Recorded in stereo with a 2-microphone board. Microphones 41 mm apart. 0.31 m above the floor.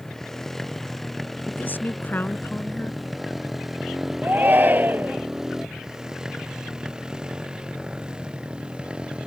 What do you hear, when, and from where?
0.0 s a motorcycle: 5° left (ahead or behind); by 9.3 s 25° right (ahead or behind)
1.5 s a woman speaking: 45° left (ahead or behind)
4.2 s a shout: 45° right (ahead or behind)